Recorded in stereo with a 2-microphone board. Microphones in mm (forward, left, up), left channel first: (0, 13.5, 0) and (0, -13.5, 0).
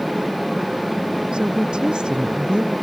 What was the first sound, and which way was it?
A woman speaking, 35° right (ahead or behind).